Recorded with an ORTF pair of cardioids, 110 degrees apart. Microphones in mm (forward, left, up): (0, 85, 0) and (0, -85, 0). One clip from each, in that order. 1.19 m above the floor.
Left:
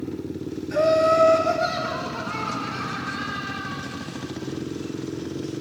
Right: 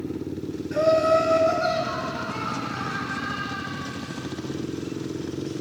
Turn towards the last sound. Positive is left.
turn(degrees=35)